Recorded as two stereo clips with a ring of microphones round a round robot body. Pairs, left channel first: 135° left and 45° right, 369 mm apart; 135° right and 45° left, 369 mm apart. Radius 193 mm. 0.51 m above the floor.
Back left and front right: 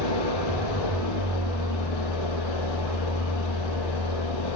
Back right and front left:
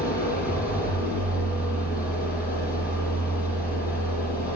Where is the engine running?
160° left, 9 m.